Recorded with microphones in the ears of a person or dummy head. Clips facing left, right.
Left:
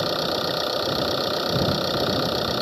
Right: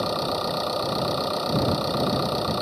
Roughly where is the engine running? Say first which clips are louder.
Left 1 dB; centre.